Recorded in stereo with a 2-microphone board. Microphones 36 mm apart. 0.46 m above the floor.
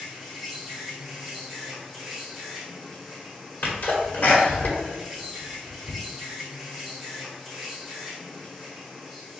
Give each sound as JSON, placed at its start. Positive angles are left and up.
{"t": 0.0, "sound": "an insect", "side_deg": -5, "distance_m": 1.5}
{"t": 3.6, "sound": "a sneeze", "side_deg": 55, "distance_m": 1.6}